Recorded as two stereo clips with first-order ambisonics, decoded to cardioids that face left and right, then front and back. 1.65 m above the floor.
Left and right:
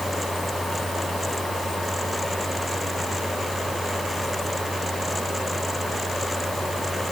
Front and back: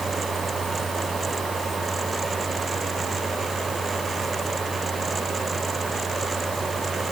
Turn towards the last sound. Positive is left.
No sound to turn to.